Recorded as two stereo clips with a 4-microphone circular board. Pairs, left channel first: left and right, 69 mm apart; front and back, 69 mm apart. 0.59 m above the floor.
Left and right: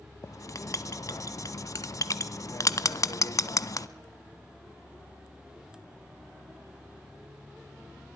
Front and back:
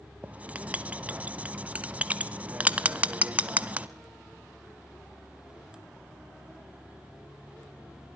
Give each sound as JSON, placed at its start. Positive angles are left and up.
{"t": 0.2, "sound": "writing", "azimuth_deg": 110, "distance_m": 0.7}